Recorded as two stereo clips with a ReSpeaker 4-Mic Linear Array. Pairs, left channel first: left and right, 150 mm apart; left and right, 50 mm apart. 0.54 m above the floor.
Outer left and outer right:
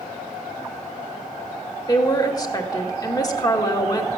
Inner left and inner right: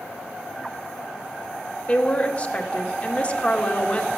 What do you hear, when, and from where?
1.9 s a woman speaking: 25° left (ahead or behind), 1.6 m